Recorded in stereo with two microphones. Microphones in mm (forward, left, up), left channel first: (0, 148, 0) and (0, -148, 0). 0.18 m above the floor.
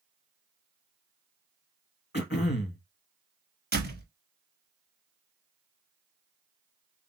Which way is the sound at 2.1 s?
35° left (ahead or behind).